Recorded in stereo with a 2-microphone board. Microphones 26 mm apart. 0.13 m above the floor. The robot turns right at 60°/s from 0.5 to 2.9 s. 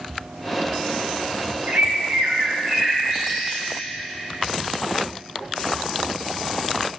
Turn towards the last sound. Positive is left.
turn(degrees=-30)